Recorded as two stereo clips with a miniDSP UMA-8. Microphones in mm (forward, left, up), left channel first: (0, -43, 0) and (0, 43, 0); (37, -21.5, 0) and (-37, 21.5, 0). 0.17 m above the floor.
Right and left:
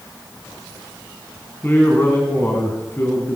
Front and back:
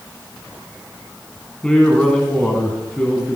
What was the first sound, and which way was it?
A man speaking, 100° right.